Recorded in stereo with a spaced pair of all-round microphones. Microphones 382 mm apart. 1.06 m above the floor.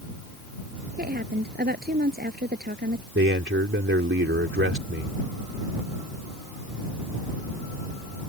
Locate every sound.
1.0 s a woman speaking: 25° right (ahead or behind)
3.1 s a man speaking: 30° right (ahead or behind)